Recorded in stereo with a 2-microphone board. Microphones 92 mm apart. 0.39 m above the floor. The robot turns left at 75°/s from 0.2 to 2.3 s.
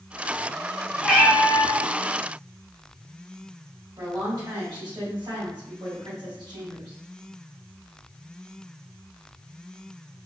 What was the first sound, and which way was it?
A cat meowing, straight behind.